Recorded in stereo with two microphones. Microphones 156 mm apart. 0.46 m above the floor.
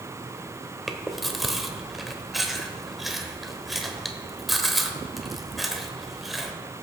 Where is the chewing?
Centre (ahead or behind), 1.0 m.